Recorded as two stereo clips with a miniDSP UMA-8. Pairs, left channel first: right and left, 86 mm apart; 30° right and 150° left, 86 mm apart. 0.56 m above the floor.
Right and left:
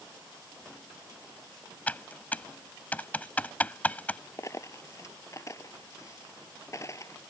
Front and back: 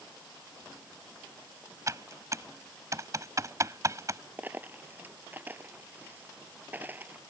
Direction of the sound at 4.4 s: 145° right.